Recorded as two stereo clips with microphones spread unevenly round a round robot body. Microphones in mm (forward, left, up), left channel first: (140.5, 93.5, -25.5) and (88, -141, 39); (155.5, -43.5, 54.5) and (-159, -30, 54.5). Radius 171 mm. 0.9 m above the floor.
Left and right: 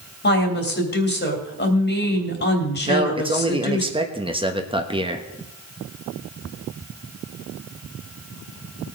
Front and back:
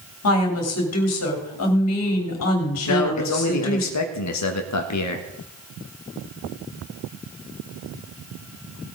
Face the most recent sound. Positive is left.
turn(degrees=-25)